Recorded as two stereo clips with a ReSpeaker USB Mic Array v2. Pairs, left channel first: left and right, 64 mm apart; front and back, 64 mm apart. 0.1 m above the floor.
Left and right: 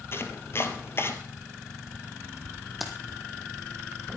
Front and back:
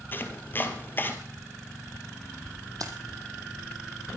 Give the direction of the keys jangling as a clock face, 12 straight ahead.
6 o'clock.